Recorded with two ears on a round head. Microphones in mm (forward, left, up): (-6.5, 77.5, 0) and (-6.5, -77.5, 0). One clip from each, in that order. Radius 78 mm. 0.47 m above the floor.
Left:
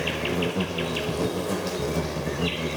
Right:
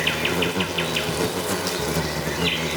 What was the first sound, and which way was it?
An insect, 50° right (ahead or behind).